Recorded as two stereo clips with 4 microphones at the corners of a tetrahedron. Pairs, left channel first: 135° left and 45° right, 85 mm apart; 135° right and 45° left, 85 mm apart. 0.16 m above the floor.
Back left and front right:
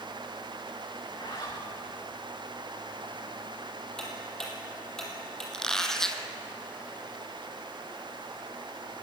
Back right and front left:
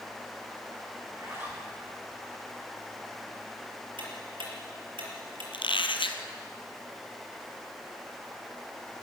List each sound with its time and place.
1.0 s a zipper: 105° left, 8.5 m
4.0 s ticking: 50° left, 5 m
5.5 s a squeak: 140° right, 1.6 m